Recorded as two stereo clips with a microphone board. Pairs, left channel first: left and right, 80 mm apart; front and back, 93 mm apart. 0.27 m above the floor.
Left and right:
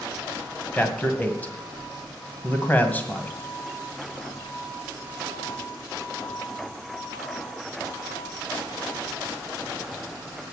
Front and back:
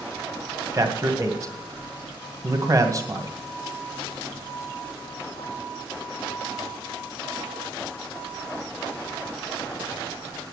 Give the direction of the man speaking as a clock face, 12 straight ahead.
7 o'clock.